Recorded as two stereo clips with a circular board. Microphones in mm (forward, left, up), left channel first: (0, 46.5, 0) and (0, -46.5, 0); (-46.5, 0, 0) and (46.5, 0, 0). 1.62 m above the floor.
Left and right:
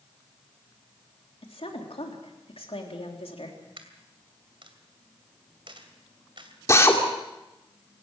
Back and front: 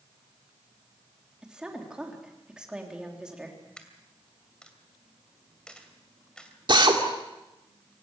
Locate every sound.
1.4 s a woman speaking: 80° left, 3.5 m
3.8 s a dropped coin: 100° right, 2.5 m
6.7 s a drill: 35° left, 2.5 m